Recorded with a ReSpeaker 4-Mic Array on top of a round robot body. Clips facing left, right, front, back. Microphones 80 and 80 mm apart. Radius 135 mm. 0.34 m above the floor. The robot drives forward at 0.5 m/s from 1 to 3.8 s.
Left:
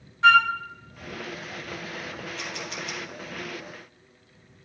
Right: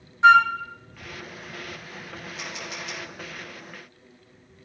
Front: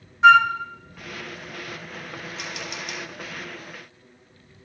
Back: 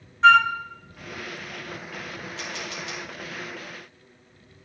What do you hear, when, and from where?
0.2 s a flute: 60° right, 1.2 m
2.4 s a camera shutter: 175° right, 3.5 m